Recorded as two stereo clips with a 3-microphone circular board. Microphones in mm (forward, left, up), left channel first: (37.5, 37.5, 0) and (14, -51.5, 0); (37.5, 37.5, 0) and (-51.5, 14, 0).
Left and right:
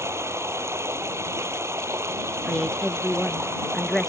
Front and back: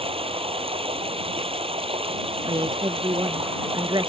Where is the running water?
165° right.